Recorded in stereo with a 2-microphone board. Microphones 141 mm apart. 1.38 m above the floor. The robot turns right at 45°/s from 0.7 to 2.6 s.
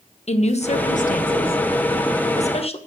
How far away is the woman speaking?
About 1.1 m.